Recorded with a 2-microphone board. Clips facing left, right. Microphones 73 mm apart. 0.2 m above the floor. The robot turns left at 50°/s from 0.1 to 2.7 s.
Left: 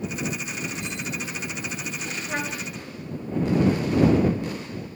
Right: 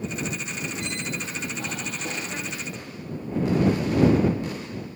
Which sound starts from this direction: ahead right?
A squeak, at 0.8 s.